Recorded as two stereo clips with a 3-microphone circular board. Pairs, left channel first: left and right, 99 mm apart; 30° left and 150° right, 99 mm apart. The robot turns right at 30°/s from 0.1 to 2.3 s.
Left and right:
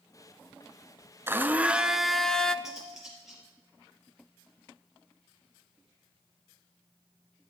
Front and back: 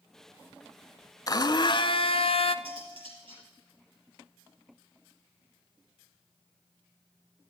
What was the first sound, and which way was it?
A blender, 25° right.